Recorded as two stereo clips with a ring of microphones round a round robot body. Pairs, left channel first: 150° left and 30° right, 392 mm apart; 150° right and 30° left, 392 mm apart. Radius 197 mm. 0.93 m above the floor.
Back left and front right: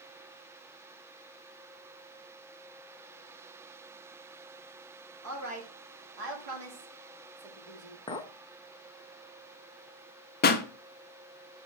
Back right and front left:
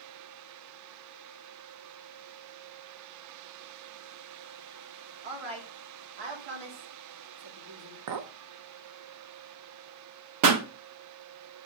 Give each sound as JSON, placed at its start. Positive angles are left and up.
{"t": 5.2, "sound": "a woman speaking", "azimuth_deg": 25, "distance_m": 2.0}
{"t": 8.1, "sound": "a clink", "azimuth_deg": 70, "distance_m": 0.7}
{"t": 10.4, "sound": "a pop", "azimuth_deg": 80, "distance_m": 0.7}